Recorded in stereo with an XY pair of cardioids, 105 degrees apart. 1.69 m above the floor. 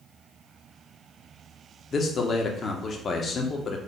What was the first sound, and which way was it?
A man speaking, 45° left.